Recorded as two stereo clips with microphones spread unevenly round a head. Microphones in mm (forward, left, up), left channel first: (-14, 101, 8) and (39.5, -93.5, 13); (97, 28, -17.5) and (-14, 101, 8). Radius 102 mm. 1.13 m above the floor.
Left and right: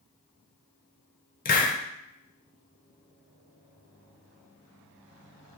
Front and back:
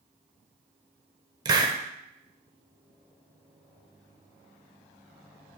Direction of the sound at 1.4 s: 130° left.